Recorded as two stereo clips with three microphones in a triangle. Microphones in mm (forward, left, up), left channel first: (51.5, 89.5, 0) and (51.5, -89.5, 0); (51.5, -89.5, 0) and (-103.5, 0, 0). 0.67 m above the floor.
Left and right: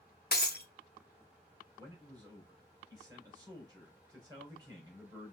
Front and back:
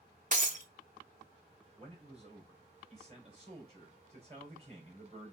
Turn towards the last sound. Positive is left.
turn(degrees=-160)